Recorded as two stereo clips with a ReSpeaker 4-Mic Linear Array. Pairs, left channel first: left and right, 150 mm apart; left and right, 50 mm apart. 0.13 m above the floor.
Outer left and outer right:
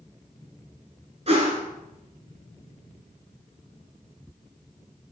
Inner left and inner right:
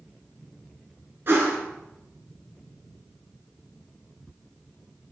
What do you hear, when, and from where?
1.3 s a whoosh: 45° right (ahead or behind), 1.1 m